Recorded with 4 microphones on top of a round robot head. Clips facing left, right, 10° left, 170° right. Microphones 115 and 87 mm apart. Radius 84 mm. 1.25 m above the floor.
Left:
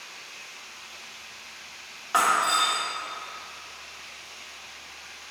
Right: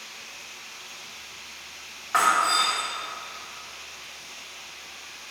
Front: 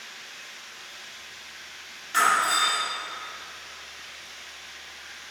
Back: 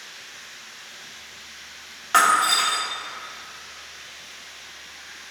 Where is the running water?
60° right, 3.5 m.